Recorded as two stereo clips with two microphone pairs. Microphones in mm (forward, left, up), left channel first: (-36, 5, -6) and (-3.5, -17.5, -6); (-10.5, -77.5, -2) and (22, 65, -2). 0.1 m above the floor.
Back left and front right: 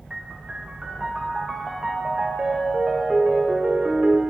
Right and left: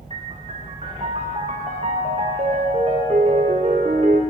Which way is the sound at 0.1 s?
35° left.